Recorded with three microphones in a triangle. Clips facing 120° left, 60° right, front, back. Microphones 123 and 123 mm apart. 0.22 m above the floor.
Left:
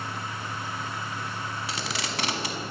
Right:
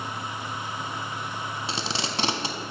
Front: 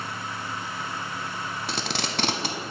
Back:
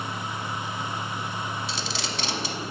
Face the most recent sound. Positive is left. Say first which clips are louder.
# right 2 dB, front 2 dB
turn(degrees=0)